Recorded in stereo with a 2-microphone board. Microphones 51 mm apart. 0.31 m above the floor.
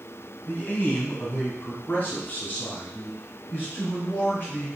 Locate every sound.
0.5 s a man speaking: 35° left (ahead or behind), 1.4 m; by 4.7 s 40° left (ahead or behind), 3.5 m